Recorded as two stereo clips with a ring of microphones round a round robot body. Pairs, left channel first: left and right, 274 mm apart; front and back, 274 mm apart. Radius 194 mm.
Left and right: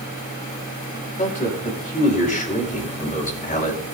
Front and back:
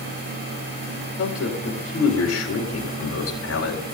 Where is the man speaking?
25° left, 4.5 m.